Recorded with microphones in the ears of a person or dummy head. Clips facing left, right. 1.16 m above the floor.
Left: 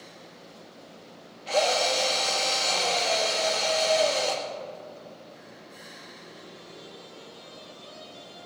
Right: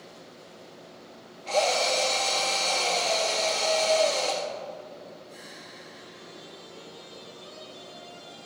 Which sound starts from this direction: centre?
A drill, at 1.5 s.